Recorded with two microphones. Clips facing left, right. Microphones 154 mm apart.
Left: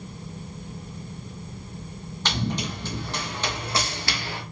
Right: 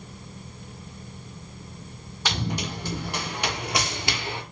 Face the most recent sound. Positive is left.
turn(degrees=-20)  # may be behind; listen again after turning